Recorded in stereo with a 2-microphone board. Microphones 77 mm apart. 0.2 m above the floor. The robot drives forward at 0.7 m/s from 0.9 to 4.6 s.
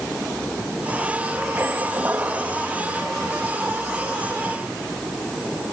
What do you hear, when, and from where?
1.6 s a squeak: 25° right (ahead or behind), 1.9 m; by 2.6 s 20° right (ahead or behind), 2.5 m